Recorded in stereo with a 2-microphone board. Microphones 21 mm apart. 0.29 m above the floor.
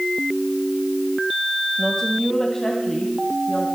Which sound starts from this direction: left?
A woman speaking, at 1.8 s.